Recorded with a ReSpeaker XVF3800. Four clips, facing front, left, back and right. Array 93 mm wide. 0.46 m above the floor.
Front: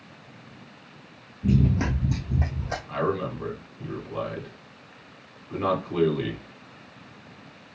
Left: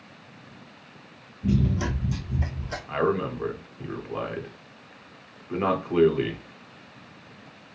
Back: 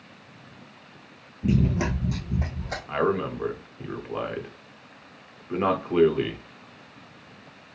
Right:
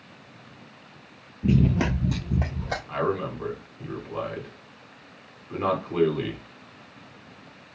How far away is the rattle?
No rattle in this recording.